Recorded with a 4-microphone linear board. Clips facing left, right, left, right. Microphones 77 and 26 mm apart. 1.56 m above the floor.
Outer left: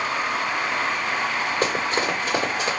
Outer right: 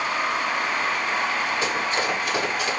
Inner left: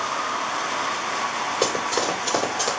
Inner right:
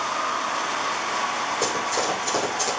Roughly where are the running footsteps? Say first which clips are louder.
Outer left 1 dB, inner left 3 dB; left.